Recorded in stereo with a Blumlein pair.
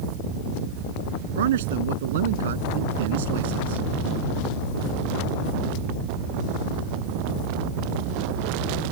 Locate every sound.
1.4 s a man speaking: 60° right